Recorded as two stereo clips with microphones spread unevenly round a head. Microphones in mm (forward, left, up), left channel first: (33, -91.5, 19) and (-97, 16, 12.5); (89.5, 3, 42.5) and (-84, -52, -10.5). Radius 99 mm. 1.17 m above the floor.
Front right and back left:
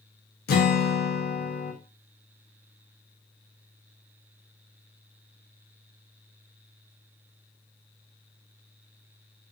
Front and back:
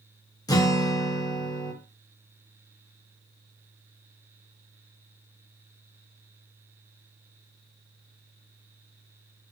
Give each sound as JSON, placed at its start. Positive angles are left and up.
{"t": 0.5, "sound": "a guitar", "azimuth_deg": -60, "distance_m": 0.5}